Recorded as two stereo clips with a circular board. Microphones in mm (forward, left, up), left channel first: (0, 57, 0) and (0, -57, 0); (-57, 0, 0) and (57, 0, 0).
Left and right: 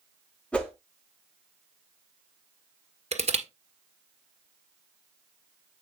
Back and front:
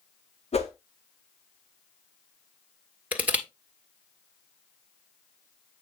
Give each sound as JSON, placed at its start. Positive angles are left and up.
{"t": 0.5, "sound": "a whoosh", "azimuth_deg": 170, "distance_m": 2.5}
{"t": 3.1, "sound": "crushing", "azimuth_deg": -75, "distance_m": 1.6}